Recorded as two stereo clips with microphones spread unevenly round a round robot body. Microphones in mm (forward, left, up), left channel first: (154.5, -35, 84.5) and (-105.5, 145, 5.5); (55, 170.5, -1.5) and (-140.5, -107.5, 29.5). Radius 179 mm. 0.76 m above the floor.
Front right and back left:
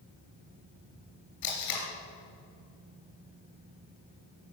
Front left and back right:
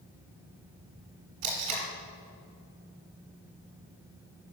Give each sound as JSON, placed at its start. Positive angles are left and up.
{"t": 1.4, "sound": "tape being pulled", "azimuth_deg": -80, "distance_m": 3.0}